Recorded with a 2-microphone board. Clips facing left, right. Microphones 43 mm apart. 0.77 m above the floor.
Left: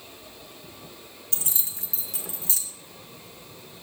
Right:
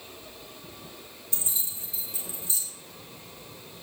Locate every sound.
1.3 s keys jangling: 75° left (ahead or behind), 1.2 m